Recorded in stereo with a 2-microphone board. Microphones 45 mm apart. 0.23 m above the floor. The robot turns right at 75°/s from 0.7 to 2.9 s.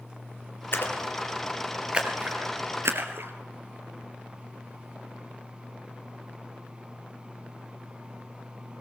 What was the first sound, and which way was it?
A splash, 65° left (ahead or behind).